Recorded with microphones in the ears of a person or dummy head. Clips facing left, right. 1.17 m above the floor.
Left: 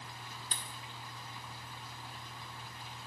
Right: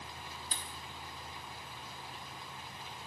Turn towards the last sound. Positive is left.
turn(degrees=50)  # may be behind; listen again after turning